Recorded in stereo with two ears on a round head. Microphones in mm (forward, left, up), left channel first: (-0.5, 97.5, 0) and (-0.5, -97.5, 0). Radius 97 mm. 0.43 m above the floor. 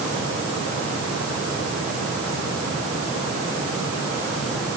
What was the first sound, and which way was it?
Only background noise.